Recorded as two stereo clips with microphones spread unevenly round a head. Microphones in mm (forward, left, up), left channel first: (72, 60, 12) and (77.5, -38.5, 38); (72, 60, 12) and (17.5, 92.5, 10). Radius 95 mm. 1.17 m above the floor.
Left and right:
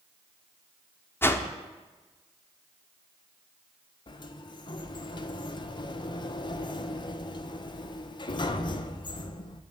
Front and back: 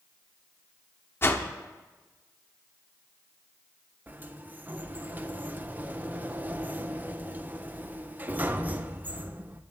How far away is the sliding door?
About 0.8 m.